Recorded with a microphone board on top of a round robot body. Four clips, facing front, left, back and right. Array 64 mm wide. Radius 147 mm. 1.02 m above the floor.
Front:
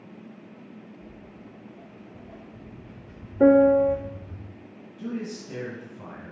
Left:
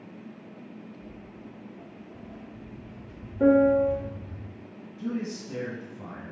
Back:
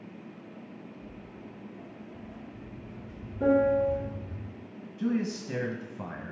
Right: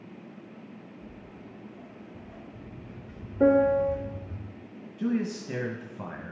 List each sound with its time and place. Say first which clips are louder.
1.0 s footsteps: left 1 dB, even; 20° right, 4.5 m; by 4.4 s 80° right, 4 m
3.4 s a piano: left 2 dB, front 7 dB; 15° right, 0.8 m
5.0 s a man speaking: right 4 dB, back 4 dB; 120° right, 1.3 m